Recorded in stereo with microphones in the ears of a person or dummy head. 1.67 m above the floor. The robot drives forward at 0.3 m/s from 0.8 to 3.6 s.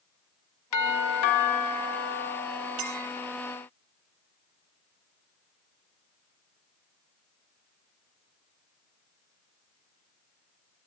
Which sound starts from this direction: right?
A clink, at 2.8 s.